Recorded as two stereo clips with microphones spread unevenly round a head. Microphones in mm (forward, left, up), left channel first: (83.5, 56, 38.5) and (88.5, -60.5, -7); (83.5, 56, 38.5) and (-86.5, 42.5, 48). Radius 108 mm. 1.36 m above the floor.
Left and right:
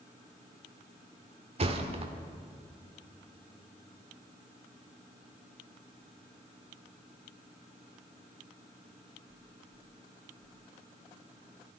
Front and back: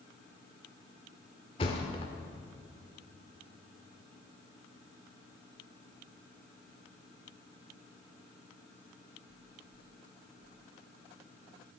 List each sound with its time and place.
1.6 s a thud: 55° right, 1.2 m